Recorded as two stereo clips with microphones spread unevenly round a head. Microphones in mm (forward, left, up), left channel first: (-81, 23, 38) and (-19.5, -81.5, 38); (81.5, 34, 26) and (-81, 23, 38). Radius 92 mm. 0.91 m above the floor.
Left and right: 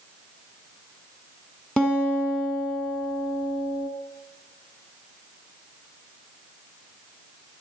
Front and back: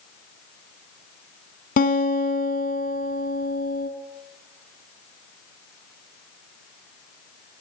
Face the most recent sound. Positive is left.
turn(degrees=35)